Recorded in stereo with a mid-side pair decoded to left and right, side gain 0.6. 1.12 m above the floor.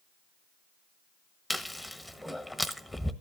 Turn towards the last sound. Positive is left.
turn(degrees=0)